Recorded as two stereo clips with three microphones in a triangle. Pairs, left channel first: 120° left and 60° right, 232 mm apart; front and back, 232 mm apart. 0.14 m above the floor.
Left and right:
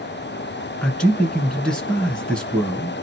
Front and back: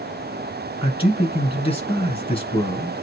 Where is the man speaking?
35° left, 1.7 m.